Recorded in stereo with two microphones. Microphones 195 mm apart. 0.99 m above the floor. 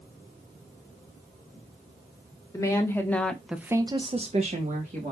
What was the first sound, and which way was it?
A woman speaking, 15° left (ahead or behind).